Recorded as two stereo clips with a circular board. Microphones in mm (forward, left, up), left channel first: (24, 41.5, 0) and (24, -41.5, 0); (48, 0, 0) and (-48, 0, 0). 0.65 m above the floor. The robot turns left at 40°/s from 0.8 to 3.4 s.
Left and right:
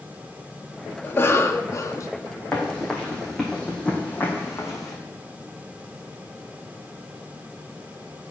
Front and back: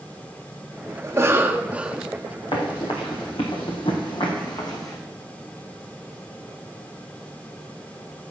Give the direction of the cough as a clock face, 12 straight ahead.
7 o'clock.